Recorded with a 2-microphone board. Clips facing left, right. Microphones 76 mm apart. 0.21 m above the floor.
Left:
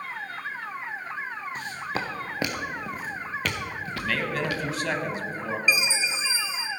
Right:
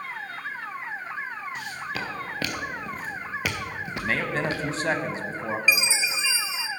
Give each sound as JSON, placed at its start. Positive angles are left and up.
{"t": 1.6, "sound": "footsteps", "side_deg": 40, "distance_m": 1.7}
{"t": 4.0, "sound": "a man speaking", "side_deg": -30, "distance_m": 1.1}
{"t": 5.7, "sound": "a chime", "side_deg": -85, "distance_m": 0.7}